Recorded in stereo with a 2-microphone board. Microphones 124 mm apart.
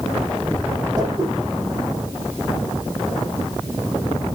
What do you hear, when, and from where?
1.0 s a whoosh: 30° right (ahead or behind), 6.5 m